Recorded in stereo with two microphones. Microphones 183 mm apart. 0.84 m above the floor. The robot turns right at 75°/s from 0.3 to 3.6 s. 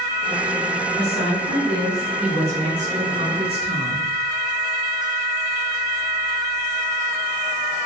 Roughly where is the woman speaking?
Left.